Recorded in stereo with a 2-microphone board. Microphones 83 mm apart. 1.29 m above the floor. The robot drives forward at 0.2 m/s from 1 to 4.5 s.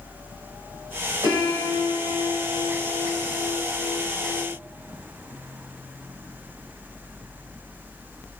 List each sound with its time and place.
1.2 s a piano: 65° right (ahead or behind), 2 m; by 4.5 s 55° right (ahead or behind), 2.5 m